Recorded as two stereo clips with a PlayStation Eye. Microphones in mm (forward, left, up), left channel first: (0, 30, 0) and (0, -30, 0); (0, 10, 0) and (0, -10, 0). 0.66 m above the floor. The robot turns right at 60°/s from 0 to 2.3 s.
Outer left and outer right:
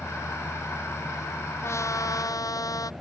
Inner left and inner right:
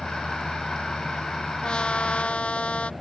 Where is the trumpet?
50° left; by 2.9 s 90° left.